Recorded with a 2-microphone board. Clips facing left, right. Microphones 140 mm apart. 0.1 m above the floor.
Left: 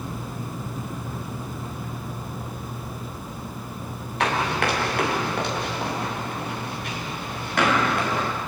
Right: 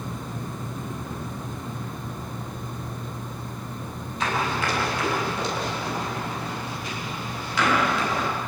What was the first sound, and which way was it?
Running footsteps, 75° left (ahead or behind).